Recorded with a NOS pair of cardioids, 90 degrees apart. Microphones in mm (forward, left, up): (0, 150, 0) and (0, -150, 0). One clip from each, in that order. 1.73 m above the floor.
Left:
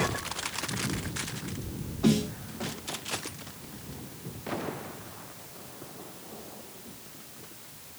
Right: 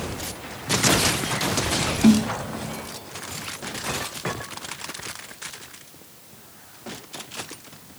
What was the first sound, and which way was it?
A snare drum, 70° right.